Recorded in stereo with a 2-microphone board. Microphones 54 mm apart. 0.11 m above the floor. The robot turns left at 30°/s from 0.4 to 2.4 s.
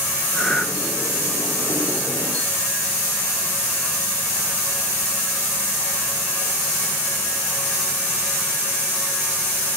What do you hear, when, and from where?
0.3 s breathing: 20° left (ahead or behind), 1.1 m; by 0.7 s 25° left (ahead or behind), 1.1 m